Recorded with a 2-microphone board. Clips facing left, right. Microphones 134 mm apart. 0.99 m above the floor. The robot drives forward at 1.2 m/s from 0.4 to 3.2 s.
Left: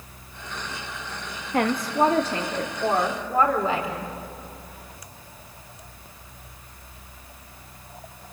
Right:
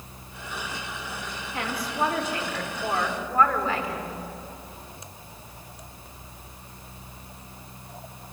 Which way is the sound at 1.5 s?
50° left (ahead or behind).